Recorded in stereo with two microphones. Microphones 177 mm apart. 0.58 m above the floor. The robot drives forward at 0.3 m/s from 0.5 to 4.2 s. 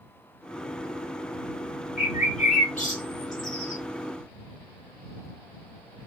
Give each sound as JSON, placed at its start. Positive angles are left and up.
{"t": 2.0, "sound": "a bird", "side_deg": 40, "distance_m": 1.2}